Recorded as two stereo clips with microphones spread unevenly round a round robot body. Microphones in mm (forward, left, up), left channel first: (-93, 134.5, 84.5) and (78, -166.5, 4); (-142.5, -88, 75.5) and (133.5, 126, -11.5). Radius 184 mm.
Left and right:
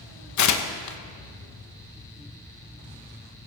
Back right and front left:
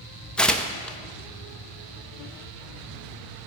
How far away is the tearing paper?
About 1.1 m.